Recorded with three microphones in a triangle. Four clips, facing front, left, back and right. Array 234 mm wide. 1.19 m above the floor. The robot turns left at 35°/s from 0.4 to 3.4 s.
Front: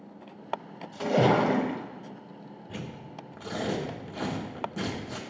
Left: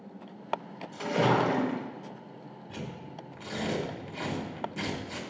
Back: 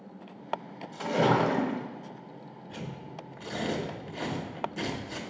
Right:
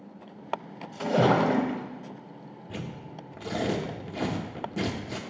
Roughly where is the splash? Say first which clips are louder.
Right 3 dB, front 2 dB; ahead.